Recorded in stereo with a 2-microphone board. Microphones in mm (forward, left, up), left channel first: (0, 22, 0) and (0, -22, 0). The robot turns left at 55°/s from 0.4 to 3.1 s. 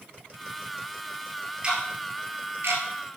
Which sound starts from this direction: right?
Ticking, at 1.6 s.